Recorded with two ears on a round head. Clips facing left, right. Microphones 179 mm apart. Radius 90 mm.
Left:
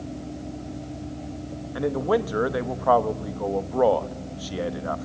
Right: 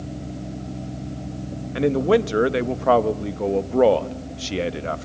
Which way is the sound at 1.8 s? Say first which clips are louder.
Right 5 dB; 30° right (ahead or behind).